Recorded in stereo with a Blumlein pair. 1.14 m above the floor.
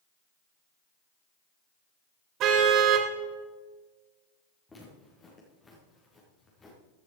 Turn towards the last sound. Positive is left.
turn(degrees=15)